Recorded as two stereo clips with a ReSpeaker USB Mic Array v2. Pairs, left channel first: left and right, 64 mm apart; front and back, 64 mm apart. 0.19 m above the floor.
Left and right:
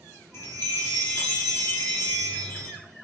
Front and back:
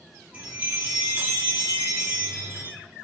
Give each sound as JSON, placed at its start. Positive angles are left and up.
{"t": 0.3, "sound": "a chime", "azimuth_deg": 125, "distance_m": 1.4}